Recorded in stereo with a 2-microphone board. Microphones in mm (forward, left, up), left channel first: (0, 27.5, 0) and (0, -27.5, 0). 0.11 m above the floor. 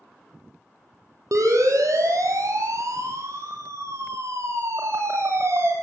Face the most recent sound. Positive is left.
turn(degrees=-50)  # may be behind; listen again after turning